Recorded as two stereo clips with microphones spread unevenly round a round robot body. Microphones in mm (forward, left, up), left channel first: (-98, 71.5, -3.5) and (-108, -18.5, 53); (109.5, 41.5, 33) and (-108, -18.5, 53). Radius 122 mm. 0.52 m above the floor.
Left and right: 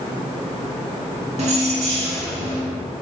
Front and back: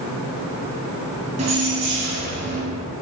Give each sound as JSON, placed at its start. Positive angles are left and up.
{"t": 1.4, "sound": "keys jangling", "azimuth_deg": -100, "distance_m": 3.0}